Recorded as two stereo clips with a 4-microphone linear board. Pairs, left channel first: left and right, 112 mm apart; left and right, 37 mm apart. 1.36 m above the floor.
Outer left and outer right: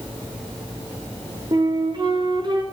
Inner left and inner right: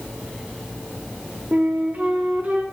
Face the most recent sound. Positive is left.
turn(degrees=-40)  # may be behind; listen again after turning